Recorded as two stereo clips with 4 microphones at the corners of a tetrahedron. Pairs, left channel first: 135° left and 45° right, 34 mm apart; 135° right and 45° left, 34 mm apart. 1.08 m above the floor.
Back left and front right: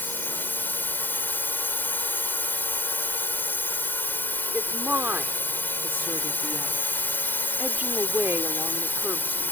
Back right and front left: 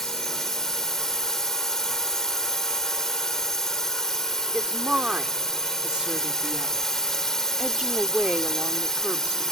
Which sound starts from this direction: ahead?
A woman speaking, at 4.5 s.